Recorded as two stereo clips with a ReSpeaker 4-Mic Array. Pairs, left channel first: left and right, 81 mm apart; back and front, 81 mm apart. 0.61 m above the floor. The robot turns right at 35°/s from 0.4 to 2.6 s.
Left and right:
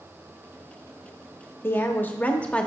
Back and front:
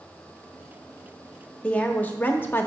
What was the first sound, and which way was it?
A woman speaking, 120° left.